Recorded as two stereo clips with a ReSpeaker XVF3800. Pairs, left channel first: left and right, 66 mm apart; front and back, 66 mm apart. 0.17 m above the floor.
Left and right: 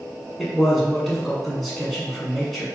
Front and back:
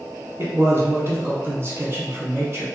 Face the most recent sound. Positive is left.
turn(degrees=180)